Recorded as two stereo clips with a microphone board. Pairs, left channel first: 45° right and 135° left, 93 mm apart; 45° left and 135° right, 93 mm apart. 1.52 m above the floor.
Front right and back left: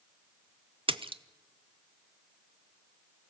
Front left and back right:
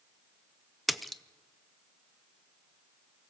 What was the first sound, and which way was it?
A splash, 135° left.